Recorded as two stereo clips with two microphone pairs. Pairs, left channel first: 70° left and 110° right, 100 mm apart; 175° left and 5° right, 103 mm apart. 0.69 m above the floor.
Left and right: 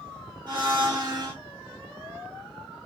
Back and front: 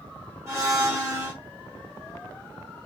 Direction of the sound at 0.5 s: 70° right.